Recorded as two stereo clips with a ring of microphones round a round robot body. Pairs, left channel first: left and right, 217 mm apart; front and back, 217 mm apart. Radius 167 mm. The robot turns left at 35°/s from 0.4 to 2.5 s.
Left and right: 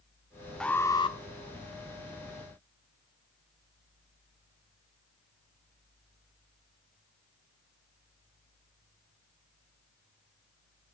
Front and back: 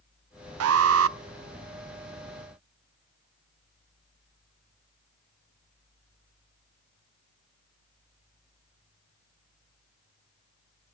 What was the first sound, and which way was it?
An alarm, 175° left.